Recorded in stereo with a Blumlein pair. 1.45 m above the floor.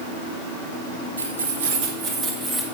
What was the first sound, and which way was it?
Keys jangling, 70° right.